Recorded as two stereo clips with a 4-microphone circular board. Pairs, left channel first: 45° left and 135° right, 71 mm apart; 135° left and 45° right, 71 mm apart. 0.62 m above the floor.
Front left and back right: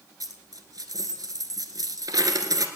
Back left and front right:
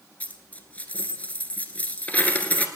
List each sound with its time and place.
0.2 s a dropped coin: 155° right, 1.5 m